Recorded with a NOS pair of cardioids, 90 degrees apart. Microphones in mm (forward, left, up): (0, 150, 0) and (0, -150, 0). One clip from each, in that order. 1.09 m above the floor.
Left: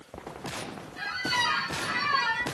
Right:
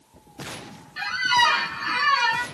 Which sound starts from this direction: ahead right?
A squeak, at 1.0 s.